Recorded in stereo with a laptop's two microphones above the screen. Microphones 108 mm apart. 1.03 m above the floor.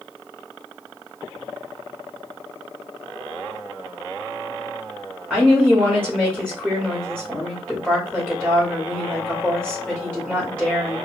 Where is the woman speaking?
15° right (ahead or behind), 1.4 m.